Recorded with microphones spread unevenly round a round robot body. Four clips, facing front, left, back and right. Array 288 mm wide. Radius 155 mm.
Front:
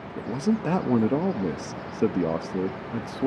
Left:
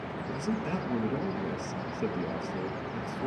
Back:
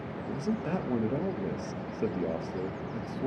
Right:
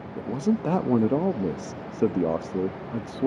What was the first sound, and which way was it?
A man speaking, 45° right.